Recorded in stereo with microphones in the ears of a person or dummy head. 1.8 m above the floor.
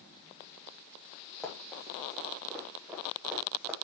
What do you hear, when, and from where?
1.4 s running footsteps: 5° left (ahead or behind), 3 m; by 3.7 s 10° right (ahead or behind), 4 m